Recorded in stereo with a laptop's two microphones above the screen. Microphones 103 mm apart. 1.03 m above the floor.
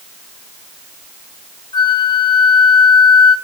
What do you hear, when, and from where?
1.7 s a flute: 45° left (ahead or behind), 0.8 m